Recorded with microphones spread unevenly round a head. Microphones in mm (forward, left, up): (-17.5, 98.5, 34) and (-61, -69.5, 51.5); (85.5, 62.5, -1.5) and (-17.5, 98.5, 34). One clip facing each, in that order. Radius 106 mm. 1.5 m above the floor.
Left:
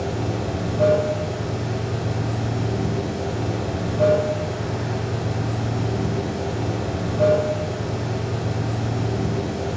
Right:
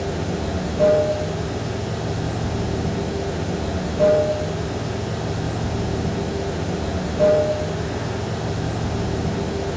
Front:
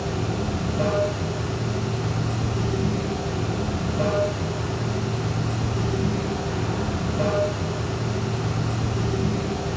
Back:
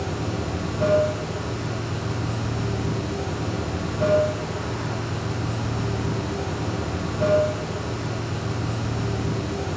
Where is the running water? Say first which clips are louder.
Right 1 dB, front 1 dB; 45° right, 2 m.